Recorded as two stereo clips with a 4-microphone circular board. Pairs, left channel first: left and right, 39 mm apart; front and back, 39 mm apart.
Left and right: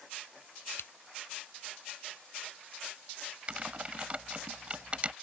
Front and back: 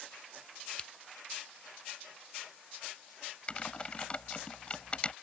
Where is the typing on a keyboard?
45° right.